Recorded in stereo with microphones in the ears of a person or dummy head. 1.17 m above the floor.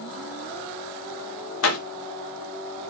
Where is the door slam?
80° left, 2.5 m.